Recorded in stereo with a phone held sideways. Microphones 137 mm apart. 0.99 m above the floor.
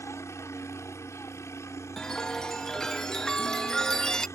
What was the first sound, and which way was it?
A helicopter, 20° left (ahead or behind).